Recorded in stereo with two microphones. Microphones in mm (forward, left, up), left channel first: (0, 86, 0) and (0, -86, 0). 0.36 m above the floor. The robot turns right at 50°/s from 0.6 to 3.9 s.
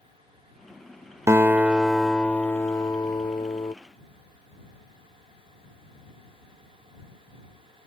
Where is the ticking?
I don't hear ticking.